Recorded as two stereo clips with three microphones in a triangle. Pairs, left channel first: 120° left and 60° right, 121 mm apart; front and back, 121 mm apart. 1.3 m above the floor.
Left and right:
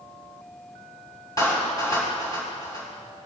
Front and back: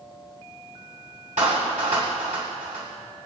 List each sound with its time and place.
1.4 s a clap: straight behind, 6 m